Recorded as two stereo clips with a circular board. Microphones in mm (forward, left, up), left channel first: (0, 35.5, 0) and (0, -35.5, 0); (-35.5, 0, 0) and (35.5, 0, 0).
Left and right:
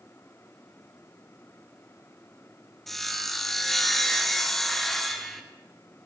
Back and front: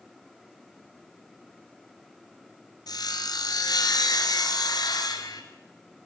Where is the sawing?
175° left, 2 m.